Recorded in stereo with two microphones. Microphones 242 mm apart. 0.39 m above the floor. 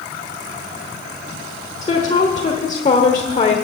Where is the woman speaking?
30° left (ahead or behind), 1.1 m.